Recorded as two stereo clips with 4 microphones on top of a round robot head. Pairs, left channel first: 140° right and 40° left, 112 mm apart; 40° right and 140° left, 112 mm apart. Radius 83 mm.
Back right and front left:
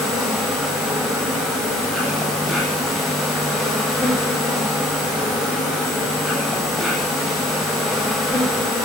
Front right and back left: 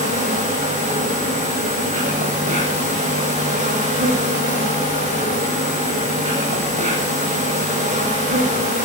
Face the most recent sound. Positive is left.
turn(degrees=130)